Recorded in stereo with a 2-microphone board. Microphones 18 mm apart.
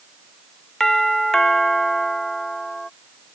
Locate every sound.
0.8 s a doorbell: 30° left (ahead or behind)